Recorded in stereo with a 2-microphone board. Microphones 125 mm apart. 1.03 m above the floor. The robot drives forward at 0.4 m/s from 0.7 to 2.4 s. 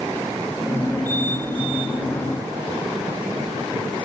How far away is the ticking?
No ticking in this recording.